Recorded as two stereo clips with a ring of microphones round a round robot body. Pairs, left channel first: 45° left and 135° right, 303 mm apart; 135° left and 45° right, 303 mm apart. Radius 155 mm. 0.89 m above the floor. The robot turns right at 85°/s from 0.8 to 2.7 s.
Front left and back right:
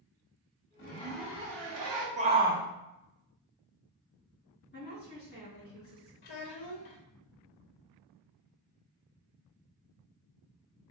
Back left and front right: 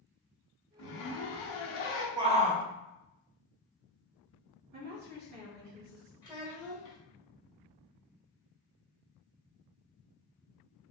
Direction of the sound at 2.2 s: 105° right.